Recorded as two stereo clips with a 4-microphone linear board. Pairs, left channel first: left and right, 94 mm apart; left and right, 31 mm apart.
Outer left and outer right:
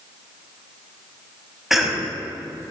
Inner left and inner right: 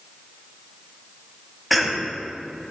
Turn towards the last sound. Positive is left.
turn(degrees=-5)  # may be behind; listen again after turning